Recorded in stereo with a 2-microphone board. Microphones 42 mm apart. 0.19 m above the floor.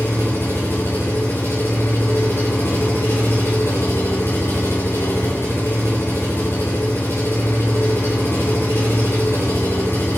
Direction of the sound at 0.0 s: 80° left.